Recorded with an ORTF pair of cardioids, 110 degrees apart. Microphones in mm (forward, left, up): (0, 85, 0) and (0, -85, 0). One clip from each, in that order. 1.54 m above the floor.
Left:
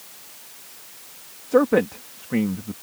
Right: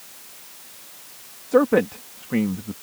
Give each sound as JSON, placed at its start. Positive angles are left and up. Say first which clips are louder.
{"t": 1.5, "sound": "a man speaking", "louder": "even", "azimuth_deg": 0}